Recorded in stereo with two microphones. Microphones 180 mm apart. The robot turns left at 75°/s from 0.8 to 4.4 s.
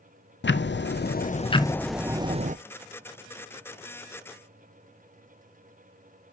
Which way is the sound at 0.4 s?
85° left.